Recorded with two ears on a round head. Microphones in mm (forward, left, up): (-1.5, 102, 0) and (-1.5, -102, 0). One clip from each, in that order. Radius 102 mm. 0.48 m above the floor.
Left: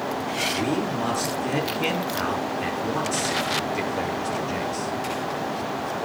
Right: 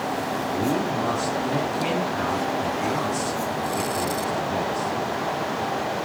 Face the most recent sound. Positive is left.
turn(degrees=70)  # may be behind; listen again after turning